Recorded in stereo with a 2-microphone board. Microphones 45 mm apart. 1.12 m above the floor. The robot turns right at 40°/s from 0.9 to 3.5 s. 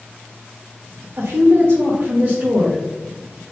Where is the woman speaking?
95° right, 0.6 m; by 2.8 s 30° right, 0.6 m.